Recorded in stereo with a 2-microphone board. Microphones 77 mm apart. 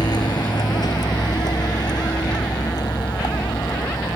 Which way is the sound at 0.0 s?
60° left (ahead or behind).